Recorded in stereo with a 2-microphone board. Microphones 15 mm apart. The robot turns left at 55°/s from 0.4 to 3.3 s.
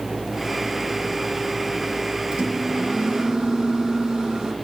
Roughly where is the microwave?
Right.